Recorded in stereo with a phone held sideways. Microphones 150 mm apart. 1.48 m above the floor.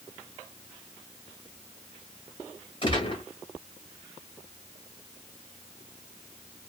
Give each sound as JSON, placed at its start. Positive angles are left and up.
{"t": 2.8, "sound": "a gunshot", "side_deg": 35, "distance_m": 1.3}